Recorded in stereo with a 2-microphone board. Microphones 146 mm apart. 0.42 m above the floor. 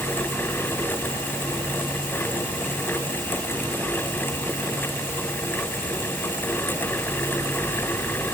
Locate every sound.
Only background noise.